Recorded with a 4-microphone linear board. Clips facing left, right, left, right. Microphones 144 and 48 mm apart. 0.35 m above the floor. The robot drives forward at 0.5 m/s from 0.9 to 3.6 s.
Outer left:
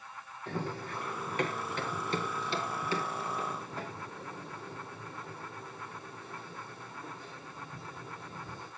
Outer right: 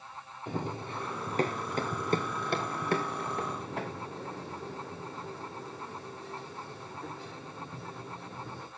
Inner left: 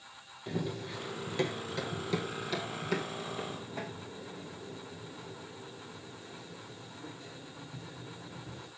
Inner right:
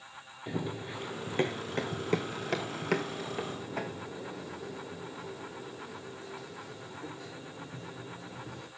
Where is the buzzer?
No buzzer in this recording.